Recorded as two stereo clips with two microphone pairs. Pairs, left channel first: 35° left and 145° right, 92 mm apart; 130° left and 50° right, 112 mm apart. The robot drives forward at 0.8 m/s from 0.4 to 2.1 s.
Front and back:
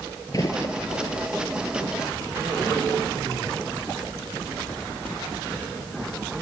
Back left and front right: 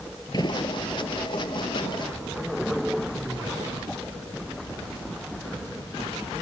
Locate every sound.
0.3 s a gunshot: 80° left; by 0.8 s 85° left